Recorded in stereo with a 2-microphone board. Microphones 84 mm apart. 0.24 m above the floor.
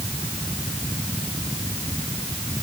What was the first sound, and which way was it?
Only background noise.